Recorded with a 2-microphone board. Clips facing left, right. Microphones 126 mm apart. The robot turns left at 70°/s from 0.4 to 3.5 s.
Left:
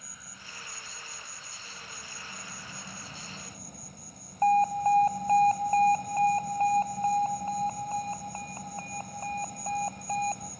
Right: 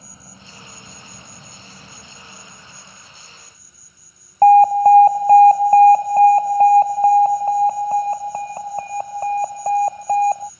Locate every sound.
0.0 s an insect: 35° right; by 10.6 s 105° left
4.4 s an alarm: 65° right (ahead or behind)